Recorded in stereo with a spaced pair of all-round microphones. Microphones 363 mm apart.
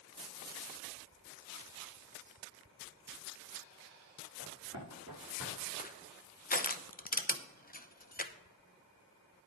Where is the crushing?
25° left (ahead or behind), 0.6 m.